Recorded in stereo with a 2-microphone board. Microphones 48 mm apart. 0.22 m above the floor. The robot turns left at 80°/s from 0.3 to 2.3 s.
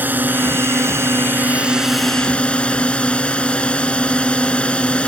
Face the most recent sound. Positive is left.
turn(degrees=155)